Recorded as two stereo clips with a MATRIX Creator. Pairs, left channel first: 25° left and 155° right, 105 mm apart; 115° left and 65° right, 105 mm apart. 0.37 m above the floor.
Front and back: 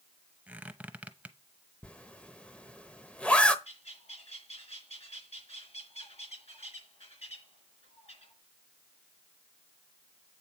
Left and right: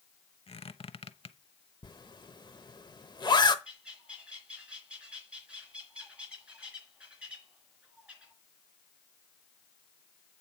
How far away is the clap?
No clap in this recording.